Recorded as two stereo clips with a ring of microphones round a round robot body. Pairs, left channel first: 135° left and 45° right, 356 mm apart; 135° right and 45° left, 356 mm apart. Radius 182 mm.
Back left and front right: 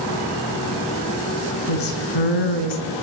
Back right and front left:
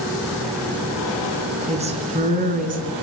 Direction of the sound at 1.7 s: 120° left.